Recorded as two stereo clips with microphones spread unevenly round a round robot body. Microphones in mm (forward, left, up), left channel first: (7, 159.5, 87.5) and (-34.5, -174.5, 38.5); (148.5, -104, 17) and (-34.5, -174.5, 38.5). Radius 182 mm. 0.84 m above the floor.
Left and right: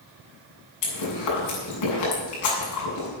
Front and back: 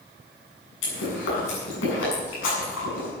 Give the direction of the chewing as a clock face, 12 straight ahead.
10 o'clock.